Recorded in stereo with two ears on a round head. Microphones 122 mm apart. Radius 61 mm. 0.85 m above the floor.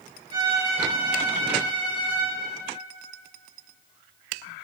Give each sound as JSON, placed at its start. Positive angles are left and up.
{"t": 0.3, "sound": "a violin", "side_deg": -35, "distance_m": 5.0}